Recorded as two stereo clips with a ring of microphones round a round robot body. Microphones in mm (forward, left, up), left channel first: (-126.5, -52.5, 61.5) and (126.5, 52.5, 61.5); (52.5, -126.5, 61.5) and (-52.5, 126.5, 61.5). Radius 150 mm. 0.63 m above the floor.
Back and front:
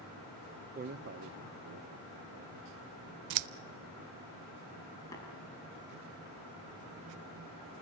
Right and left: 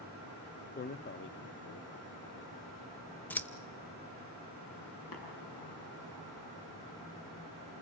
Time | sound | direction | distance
0.8 | a man speaking | 25° right | 0.7 m
3.3 | scissors | 15° left | 0.5 m
5.1 | tapping | 80° right | 8.5 m